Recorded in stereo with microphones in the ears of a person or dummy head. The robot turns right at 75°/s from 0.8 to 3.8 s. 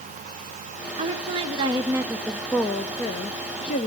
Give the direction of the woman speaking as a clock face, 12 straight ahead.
3 o'clock.